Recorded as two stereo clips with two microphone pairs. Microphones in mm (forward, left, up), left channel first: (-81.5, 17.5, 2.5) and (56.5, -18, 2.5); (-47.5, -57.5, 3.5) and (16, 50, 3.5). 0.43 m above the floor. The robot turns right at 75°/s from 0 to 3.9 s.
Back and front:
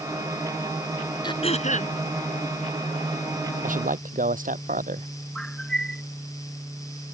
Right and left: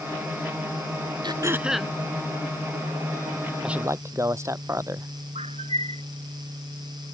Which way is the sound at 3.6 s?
25° right.